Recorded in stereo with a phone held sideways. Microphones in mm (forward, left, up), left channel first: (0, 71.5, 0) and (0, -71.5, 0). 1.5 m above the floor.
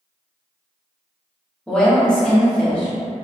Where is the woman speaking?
5° left (ahead or behind), 0.8 m.